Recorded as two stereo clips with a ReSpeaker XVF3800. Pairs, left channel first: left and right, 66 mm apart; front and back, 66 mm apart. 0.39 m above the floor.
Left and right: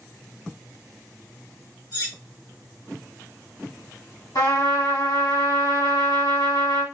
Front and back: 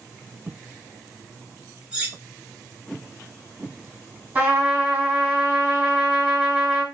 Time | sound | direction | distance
1.9 | cutlery clinking | 105° left | 2.5 m
4.3 | a trumpet | 110° left | 2.5 m